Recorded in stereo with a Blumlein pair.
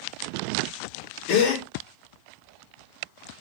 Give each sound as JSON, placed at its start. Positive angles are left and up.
{"t": 1.3, "sound": "a gasp", "azimuth_deg": 35, "distance_m": 2.0}